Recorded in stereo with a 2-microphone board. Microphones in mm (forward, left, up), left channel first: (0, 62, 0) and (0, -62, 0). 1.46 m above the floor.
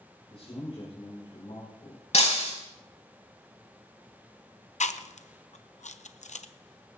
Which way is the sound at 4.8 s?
65° left (ahead or behind).